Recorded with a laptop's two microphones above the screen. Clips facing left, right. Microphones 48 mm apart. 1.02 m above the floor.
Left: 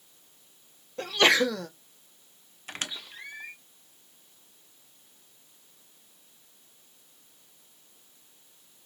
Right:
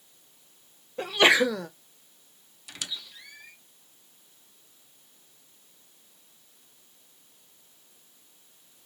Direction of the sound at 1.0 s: 15° right (ahead or behind).